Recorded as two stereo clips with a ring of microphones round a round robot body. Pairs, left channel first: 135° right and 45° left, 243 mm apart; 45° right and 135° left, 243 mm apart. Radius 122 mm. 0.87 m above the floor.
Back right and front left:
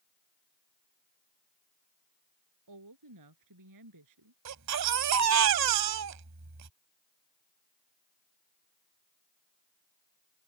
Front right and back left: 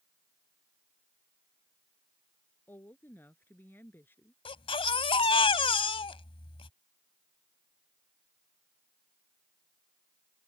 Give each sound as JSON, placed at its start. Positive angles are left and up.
{"t": 2.7, "sound": "a woman speaking", "azimuth_deg": 35}
{"t": 4.5, "sound": "a baby crying", "azimuth_deg": 25}